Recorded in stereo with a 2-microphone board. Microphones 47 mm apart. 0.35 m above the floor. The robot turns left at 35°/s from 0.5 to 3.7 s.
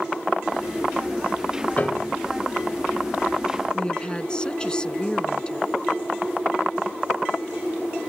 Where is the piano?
35° left (ahead or behind); by 2.2 s 30° left (ahead or behind).